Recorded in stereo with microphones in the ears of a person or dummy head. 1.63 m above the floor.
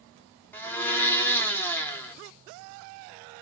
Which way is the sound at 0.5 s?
10° left (ahead or behind).